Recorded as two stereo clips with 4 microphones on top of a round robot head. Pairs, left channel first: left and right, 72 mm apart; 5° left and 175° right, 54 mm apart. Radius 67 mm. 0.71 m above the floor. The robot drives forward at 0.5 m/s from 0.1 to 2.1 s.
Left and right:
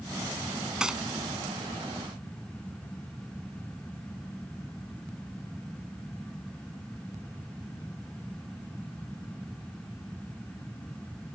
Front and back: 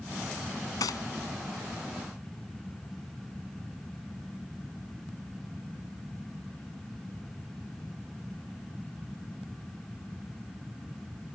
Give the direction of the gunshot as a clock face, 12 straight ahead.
12 o'clock.